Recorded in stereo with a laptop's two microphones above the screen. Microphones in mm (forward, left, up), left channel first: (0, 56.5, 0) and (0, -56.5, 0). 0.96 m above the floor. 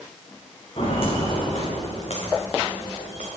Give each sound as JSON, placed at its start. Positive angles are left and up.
{"t": 0.8, "sound": "footsteps", "side_deg": 50, "distance_m": 4.0}